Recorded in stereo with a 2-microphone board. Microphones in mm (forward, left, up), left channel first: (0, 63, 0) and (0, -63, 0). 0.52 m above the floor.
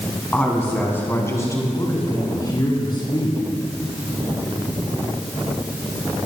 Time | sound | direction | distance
0.3 | a woman speaking | 10° left (ahead or behind) | 3.5 m